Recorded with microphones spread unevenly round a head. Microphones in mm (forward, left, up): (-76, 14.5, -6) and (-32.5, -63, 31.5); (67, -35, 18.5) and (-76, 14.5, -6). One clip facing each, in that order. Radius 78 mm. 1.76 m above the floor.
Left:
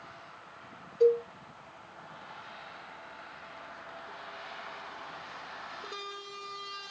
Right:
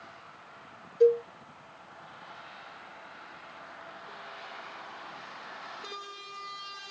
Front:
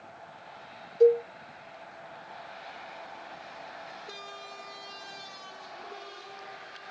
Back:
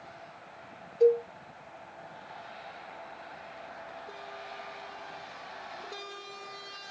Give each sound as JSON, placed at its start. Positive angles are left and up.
{"t": 1.0, "sound": "a cowbell", "azimuth_deg": -15, "distance_m": 2.5}